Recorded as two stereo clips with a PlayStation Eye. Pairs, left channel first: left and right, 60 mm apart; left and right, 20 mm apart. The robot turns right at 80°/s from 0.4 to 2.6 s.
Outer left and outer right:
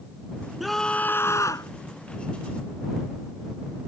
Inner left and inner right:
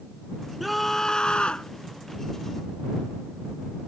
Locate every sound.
0.6 s a scream: 5° right; by 1.7 s 85° left